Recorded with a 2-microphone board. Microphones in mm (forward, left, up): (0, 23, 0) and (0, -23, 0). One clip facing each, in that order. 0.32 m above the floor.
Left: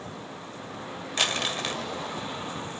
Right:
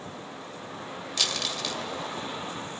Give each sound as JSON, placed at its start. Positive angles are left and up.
{"t": 1.2, "sound": "crumpling", "side_deg": 35, "distance_m": 0.7}